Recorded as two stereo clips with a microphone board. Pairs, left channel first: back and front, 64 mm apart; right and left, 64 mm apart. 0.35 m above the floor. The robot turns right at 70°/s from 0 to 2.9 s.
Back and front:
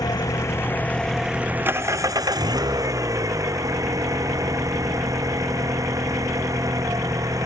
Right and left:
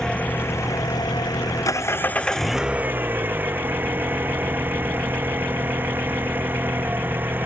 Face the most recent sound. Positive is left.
turn(degrees=30)